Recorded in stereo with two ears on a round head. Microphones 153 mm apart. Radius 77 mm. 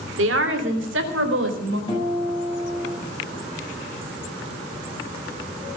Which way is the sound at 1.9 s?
30° left (ahead or behind).